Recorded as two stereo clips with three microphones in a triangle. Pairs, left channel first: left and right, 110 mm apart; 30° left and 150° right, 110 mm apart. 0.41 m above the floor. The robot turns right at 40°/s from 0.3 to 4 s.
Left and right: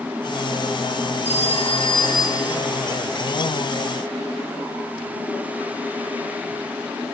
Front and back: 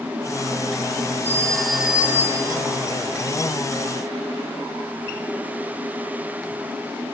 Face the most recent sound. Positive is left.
turn(degrees=-145)